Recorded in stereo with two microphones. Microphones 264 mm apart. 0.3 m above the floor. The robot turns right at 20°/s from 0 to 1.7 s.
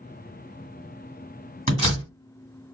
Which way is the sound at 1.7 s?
25° right (ahead or behind).